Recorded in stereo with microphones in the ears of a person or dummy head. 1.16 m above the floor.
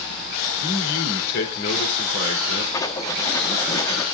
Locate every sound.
0.6 s a man speaking: 65° left (ahead or behind), 3.5 m
2.7 s writing: 20° left (ahead or behind), 1.3 m